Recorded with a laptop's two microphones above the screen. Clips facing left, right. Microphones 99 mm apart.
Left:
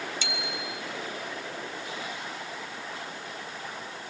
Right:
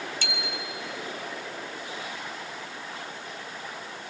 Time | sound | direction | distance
0.2 | a bicycle bell | 55° right (ahead or behind) | 3 m